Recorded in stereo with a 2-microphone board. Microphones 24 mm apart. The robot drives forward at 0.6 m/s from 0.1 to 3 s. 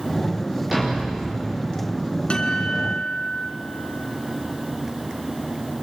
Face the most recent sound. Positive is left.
turn(degrees=50)  # may be behind; listen again after turning